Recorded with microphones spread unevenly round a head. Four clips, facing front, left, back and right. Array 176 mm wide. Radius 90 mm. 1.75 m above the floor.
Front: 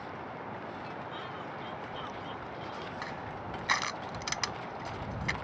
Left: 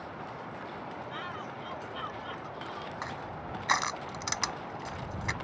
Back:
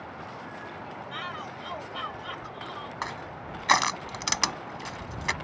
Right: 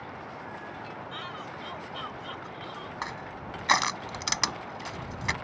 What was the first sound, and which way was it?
A shout, 170° right.